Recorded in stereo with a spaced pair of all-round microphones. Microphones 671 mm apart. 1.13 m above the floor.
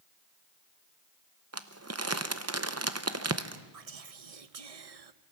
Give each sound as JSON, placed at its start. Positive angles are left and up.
{"t": 1.5, "sound": "crumpling", "side_deg": -25, "distance_m": 0.7}
{"t": 3.7, "sound": "whispering", "side_deg": -60, "distance_m": 0.8}